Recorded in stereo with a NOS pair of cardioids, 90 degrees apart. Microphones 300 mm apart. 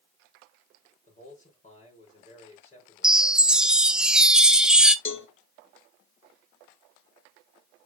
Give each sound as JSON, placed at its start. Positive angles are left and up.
{"t": 1.1, "sound": "a man speaking", "azimuth_deg": 25, "distance_m": 5.5}
{"t": 3.0, "sound": "a chime", "azimuth_deg": -5, "distance_m": 0.7}
{"t": 5.0, "sound": "a cowbell", "azimuth_deg": 40, "distance_m": 1.7}